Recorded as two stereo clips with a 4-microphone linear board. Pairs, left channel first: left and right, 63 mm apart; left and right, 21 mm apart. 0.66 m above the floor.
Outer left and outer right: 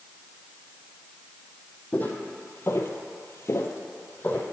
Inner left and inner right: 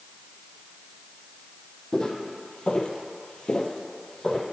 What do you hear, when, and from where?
1.9 s footsteps: 25° left (ahead or behind), 1.3 m